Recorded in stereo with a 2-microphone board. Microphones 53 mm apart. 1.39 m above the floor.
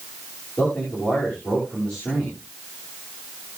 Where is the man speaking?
20° left (ahead or behind), 9 m.